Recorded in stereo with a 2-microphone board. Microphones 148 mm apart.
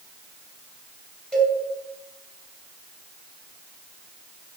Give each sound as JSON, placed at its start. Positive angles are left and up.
{"t": 1.3, "sound": "a cowbell", "side_deg": 5, "distance_m": 4.5}